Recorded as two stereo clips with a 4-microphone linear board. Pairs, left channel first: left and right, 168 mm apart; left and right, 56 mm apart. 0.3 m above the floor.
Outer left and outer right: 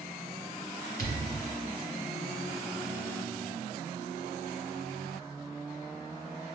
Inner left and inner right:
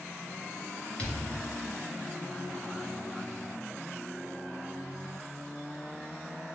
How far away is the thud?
About 1.9 m.